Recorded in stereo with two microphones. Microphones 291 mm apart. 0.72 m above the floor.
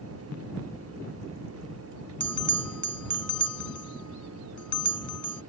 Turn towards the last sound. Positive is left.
turn(degrees=85)